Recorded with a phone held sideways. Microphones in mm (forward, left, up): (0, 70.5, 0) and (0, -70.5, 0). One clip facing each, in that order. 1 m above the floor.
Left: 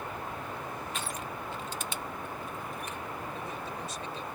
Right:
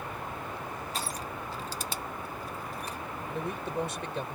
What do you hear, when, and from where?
0.9 s crushing: 35° right (ahead or behind)
3.3 s a man speaking: 65° right (ahead or behind)